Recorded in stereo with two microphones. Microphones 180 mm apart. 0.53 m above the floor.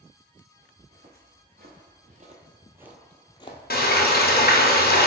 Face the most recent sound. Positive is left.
turn(degrees=55)  # may be behind; listen again after turning